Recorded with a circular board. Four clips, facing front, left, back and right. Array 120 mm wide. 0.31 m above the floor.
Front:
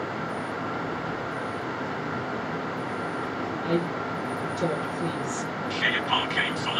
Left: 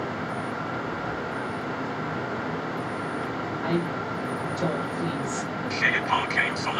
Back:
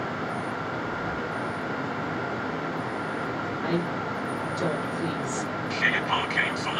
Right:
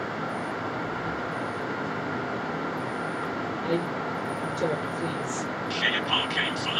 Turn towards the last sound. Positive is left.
turn(degrees=110)